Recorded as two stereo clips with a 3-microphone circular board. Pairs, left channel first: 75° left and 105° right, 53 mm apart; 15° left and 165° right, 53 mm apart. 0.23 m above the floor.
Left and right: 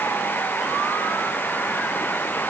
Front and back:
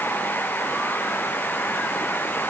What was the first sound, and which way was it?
Only background noise.